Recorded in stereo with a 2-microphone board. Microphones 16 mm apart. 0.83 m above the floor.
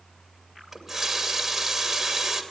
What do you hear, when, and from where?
0.7 s a running tap: 10° right (ahead or behind), 2.5 m